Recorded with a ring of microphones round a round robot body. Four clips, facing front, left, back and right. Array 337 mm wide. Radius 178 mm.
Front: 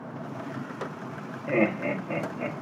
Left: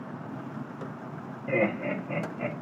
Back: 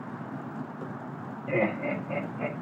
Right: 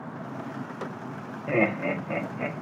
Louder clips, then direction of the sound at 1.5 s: Right 2 dB, front 2 dB; 60° right.